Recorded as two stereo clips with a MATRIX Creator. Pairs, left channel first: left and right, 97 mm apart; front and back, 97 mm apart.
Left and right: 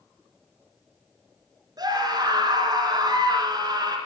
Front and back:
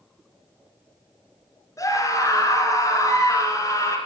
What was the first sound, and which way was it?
A scream, 50° right.